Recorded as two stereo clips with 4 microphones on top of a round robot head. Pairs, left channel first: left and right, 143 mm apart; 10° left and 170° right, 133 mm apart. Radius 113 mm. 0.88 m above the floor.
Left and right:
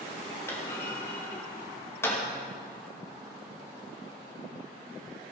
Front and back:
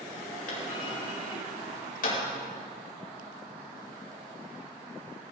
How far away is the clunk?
About 4.5 m.